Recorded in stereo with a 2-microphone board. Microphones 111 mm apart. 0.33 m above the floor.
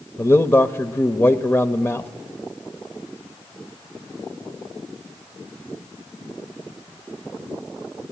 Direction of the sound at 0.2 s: 20° left (ahead or behind).